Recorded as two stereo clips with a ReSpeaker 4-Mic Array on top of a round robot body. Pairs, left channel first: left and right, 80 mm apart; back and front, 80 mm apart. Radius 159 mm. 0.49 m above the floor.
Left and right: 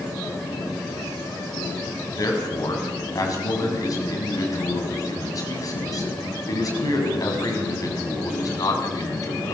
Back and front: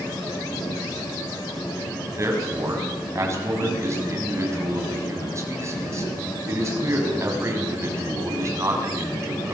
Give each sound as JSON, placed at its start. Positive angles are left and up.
{"t": 2.1, "sound": "a man speaking", "azimuth_deg": 50, "distance_m": 6.5}